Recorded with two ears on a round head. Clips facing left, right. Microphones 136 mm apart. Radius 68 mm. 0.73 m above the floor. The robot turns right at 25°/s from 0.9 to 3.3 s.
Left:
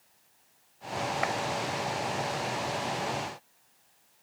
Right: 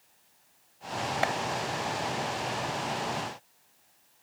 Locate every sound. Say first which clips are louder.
1.2 s a clap: right 3 dB; 40° right (ahead or behind); by 1.3 s 35° right (ahead or behind)